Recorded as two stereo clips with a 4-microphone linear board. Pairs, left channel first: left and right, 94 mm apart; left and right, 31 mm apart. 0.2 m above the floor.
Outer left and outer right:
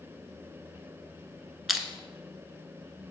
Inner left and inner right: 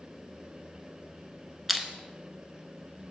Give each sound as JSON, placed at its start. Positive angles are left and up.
{"t": 1.7, "sound": "crushing", "side_deg": -5, "distance_m": 0.8}